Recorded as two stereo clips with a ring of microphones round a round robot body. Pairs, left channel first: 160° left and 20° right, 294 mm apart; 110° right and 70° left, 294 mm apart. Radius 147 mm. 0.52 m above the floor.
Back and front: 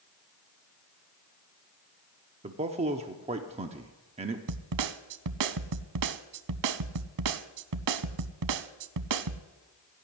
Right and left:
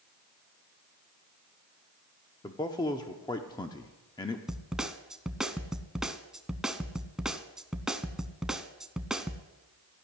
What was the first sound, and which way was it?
A man speaking, 55° right.